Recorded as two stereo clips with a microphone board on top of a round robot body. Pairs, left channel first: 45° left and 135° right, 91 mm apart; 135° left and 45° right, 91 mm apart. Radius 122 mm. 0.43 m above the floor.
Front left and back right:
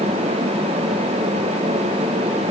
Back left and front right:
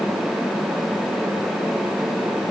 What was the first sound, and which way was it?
Only background noise.